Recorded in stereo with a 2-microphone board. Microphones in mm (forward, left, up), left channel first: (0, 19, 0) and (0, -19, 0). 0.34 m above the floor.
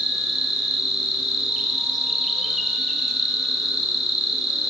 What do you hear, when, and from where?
0.0 s an insect: 5° right (ahead or behind), 1.1 m